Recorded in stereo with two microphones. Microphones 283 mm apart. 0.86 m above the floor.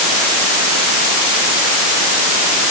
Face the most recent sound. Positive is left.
No sound to turn to.